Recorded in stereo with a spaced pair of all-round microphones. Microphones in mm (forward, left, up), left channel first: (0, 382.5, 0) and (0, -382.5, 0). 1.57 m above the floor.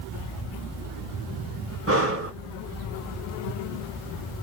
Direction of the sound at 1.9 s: 20° right (ahead or behind).